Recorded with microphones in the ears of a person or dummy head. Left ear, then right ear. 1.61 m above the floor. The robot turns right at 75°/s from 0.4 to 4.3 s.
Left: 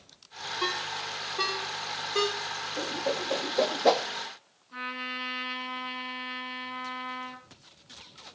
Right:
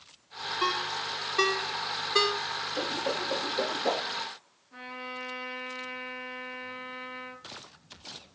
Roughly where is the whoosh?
Right.